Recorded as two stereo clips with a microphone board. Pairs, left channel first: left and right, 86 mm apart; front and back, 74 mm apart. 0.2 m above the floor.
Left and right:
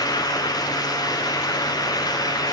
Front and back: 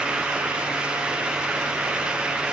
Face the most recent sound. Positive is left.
No sound to turn to.